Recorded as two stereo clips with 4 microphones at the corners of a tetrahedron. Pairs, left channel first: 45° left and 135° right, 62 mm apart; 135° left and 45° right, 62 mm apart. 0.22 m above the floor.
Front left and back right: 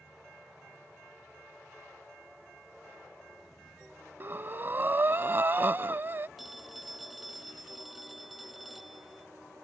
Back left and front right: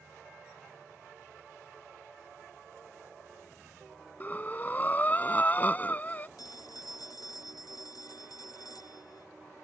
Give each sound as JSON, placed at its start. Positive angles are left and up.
{"t": 4.2, "sound": "breathing", "azimuth_deg": -175}
{"t": 6.4, "sound": "a phone ringing", "azimuth_deg": 135}